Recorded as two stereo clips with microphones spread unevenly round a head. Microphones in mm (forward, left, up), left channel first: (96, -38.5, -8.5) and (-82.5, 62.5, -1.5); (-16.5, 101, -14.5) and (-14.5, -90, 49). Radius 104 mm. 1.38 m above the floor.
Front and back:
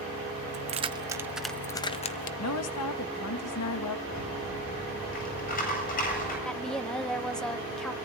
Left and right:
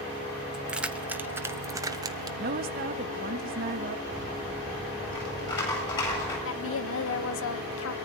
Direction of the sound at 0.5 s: 160° right.